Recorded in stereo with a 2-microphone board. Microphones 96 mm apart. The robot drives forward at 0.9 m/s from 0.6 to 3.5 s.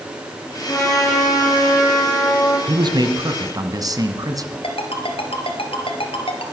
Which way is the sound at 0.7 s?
20° left (ahead or behind).